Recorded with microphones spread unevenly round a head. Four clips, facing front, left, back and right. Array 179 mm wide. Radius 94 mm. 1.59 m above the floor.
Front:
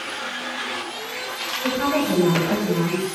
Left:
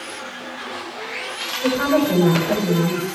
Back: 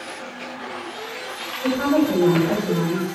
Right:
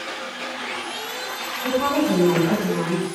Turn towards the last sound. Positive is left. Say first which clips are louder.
# left 3 dB, back 3 dB
turn(degrees=100)